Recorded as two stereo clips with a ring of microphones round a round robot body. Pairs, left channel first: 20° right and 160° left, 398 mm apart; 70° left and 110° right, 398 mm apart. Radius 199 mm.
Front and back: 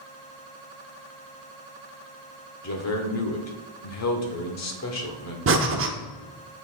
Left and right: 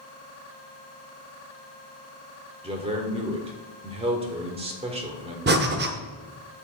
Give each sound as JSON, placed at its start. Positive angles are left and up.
{"t": 2.6, "sound": "a man speaking", "azimuth_deg": -45, "distance_m": 1.3}
{"t": 5.5, "sound": "breathing", "azimuth_deg": -165, "distance_m": 0.8}